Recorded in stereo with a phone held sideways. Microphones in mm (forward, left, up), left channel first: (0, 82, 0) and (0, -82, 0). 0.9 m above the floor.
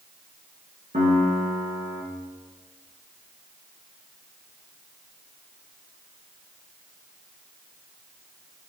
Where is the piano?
55° right (ahead or behind), 5 m.